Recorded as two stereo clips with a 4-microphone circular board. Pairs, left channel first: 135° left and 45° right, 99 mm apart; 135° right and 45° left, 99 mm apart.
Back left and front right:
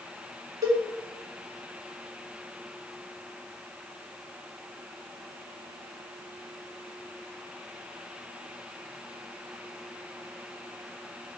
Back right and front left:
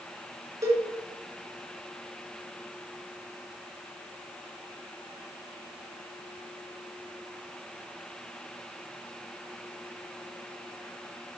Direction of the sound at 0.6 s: Straight ahead.